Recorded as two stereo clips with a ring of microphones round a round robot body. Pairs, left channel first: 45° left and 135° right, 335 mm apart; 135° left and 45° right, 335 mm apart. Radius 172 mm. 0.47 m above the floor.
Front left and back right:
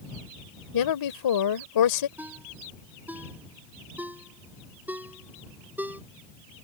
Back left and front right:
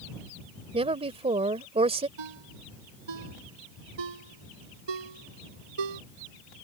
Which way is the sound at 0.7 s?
30° left.